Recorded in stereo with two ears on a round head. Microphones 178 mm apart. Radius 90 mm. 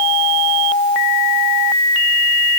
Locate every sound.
Only background noise.